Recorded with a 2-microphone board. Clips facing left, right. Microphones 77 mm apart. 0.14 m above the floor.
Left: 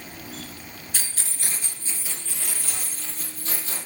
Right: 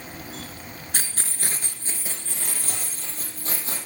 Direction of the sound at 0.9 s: 45° right (ahead or behind).